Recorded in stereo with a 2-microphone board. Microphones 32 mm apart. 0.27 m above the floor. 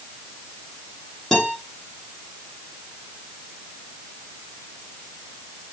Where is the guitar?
15° left (ahead or behind), 8.5 m.